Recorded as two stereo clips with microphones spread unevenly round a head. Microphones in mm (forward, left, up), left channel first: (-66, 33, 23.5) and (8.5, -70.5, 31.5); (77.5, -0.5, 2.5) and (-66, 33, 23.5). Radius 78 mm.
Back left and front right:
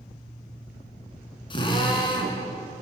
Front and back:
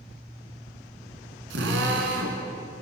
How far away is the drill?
About 5 m.